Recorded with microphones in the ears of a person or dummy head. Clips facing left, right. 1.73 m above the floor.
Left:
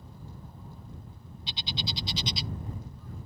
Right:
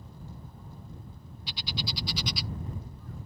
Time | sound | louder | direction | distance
1.5 | a bird | even | 20° left (ahead or behind) | ?